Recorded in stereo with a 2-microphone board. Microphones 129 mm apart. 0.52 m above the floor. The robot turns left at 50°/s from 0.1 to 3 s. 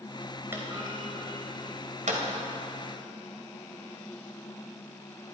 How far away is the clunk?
About 1.9 m.